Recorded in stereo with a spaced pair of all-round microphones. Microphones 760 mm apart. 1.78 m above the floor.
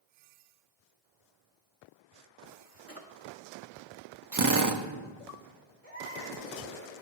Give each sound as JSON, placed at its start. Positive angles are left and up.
{"t": 2.9, "sound": "a drawer", "side_deg": 20, "distance_m": 1.5}
{"t": 4.3, "sound": "a drill", "side_deg": -30, "distance_m": 0.8}
{"t": 5.8, "sound": "a baby crying", "side_deg": 20, "distance_m": 4.5}